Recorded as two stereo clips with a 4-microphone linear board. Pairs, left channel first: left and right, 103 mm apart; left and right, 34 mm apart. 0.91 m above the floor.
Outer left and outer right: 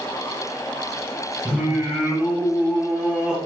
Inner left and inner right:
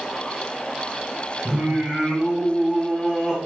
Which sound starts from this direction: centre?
Singing, at 1.4 s.